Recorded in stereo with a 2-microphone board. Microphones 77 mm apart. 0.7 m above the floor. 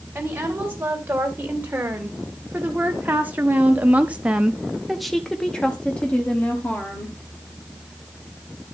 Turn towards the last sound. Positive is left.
turn(degrees=20)  # may be behind; listen again after turning